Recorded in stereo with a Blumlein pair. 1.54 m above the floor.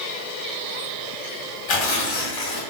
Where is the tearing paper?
45° left, 1.1 m.